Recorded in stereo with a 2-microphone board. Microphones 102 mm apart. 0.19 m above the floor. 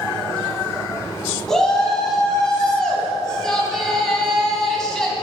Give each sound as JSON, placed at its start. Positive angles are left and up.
{"t": 1.5, "sound": "a shout", "side_deg": 5, "distance_m": 1.7}